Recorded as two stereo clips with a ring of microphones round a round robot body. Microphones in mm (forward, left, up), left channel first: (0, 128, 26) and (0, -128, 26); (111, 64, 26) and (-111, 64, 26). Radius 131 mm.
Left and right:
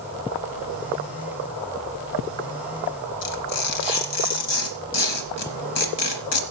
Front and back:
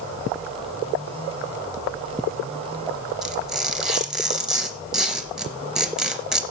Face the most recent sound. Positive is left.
turn(degrees=90)